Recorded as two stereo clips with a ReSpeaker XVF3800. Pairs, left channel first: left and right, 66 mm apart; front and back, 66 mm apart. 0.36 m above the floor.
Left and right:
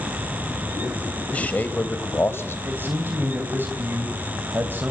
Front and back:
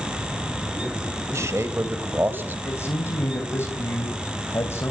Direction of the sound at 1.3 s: 155° left.